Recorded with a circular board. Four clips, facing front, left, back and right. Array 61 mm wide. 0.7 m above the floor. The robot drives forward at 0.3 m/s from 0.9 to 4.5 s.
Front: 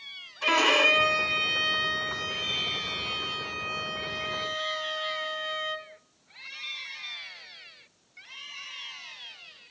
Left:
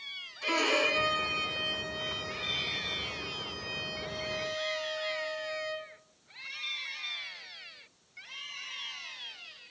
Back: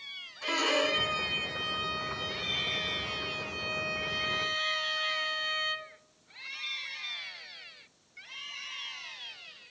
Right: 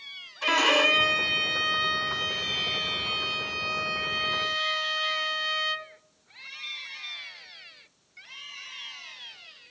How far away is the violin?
About 1.4 m.